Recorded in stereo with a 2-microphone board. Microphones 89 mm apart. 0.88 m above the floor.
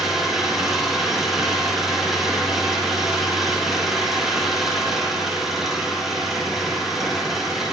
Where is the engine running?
5° right (ahead or behind), 8.5 m.